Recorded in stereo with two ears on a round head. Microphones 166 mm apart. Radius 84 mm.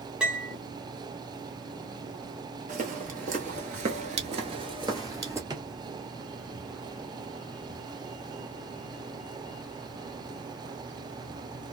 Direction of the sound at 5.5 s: 20° right (ahead or behind).